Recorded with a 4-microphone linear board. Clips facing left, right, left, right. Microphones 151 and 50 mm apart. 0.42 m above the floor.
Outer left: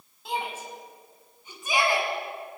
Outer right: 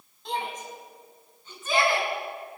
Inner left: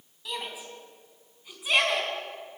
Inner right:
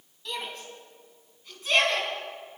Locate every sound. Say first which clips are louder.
0.2 s a shout: even, even; 5° left (ahead or behind), 4 m; by 2.1 s 15° left (ahead or behind), 5.5 m